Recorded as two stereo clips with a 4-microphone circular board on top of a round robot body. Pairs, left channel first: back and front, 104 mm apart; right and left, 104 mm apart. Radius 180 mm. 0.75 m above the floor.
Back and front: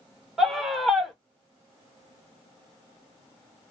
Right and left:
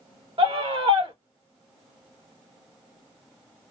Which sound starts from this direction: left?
A scream, at 0.4 s.